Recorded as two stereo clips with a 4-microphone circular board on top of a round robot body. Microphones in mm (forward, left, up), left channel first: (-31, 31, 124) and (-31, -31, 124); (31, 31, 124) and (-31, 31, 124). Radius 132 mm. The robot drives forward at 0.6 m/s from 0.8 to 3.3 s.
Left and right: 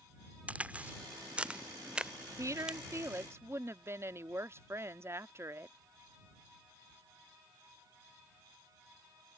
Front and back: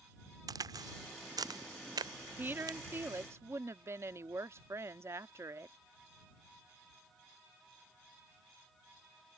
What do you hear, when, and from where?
0.5 s a crack: 160° right; by 2.8 s 165° right
2.4 s a woman speaking: 120° right; by 5.8 s 135° right